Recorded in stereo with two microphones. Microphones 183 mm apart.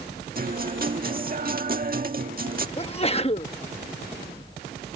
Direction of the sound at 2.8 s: 30° left (ahead or behind).